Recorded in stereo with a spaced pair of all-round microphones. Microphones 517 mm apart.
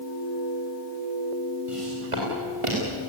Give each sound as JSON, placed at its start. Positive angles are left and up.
{"t": 1.7, "sound": "footsteps", "side_deg": -75, "distance_m": 9.0}